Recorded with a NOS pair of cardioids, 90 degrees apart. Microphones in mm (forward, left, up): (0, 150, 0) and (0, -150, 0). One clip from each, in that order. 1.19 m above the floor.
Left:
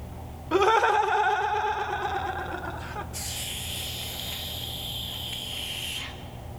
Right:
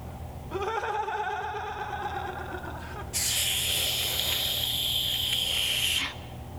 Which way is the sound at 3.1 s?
45° right.